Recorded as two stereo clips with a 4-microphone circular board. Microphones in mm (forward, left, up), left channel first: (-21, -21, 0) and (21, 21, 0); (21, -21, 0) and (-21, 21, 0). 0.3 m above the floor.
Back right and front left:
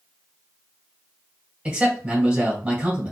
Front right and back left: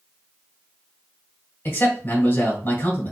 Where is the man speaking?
15° right, 2 m.